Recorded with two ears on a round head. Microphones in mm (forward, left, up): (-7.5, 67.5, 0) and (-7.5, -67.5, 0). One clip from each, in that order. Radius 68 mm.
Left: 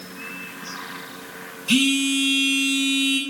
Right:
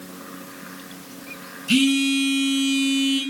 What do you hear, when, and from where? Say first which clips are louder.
1.7 s a phone buzzing: even; 35° left (ahead or behind), 6.5 m